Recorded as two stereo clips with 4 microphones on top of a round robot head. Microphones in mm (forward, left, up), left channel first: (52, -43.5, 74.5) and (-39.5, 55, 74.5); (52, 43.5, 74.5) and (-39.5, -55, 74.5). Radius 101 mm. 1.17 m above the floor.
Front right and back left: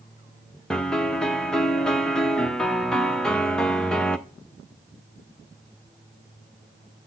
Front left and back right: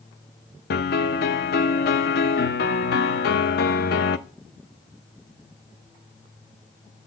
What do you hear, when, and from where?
0.7 s a piano: 40° left, 0.6 m